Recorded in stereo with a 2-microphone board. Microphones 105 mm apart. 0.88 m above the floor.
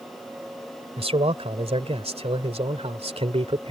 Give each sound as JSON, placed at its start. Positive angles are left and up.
{"t": 1.0, "sound": "a man speaking", "side_deg": -75}